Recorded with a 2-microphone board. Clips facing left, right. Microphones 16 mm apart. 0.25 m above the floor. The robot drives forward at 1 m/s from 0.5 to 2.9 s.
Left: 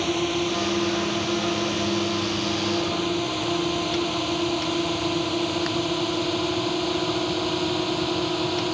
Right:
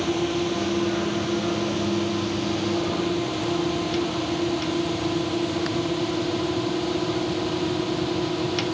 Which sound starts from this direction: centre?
A drone, at 0.0 s.